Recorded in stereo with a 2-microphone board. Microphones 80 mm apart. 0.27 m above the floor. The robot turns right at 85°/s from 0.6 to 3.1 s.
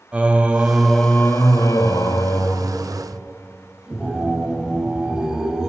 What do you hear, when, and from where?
0.1 s singing: 20° right, 0.6 m; by 5.7 s 170° right, 0.6 m